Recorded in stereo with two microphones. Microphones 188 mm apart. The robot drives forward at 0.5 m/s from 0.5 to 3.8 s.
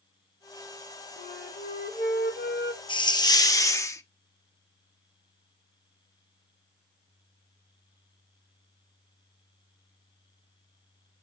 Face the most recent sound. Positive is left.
turn(degrees=15)  # may be behind; listen again after turning